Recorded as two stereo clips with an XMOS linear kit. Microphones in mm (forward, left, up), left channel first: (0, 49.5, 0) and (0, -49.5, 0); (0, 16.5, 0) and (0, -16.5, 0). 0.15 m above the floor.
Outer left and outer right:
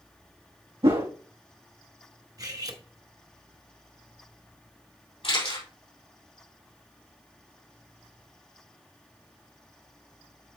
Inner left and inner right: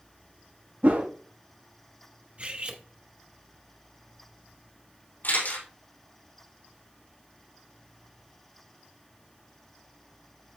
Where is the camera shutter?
75° left (ahead or behind), 4.5 m.